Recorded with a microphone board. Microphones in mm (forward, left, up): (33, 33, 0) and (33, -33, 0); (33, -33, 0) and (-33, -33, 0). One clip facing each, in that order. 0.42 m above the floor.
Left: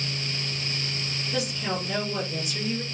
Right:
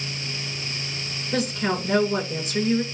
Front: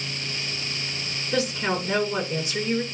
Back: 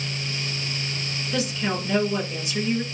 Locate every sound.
1.3 s a woman speaking: 60° right, 6 m